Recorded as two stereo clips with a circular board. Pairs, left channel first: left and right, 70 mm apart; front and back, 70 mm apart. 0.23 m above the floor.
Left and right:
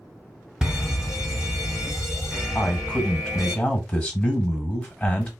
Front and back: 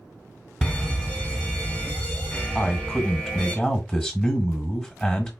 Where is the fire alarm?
35° right, 1.9 m.